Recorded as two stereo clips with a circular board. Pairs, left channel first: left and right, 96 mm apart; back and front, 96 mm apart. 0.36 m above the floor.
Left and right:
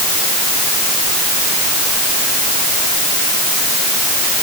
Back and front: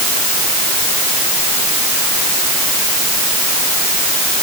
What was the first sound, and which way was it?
Only background noise.